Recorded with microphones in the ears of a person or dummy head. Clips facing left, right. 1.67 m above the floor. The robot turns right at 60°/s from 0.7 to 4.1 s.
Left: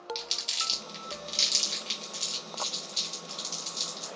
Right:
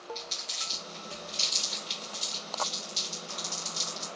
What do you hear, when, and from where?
0.1 s crumpling: 45° left (ahead or behind), 1.6 m; by 4.1 s 60° right (ahead or behind), 1.6 m